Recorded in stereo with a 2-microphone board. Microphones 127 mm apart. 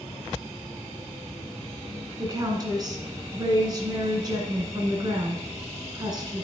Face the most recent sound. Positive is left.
turn(degrees=-30)  # may be behind; listen again after turning